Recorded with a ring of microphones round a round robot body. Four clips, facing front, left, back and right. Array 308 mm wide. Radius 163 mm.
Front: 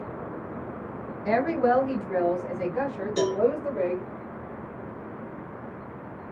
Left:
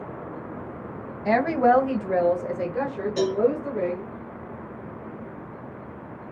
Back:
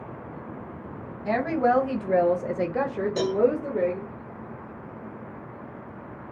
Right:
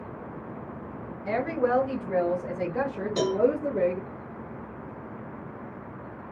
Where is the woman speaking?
85° left, 0.8 m; by 4.1 s 145° right, 1.2 m.